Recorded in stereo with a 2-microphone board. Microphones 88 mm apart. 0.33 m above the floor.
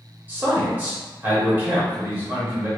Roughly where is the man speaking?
Right.